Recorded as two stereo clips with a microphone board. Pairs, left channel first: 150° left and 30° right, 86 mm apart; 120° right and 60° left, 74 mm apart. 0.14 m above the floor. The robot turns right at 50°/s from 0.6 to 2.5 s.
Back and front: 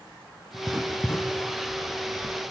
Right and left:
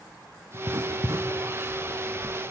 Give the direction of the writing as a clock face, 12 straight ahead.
10 o'clock.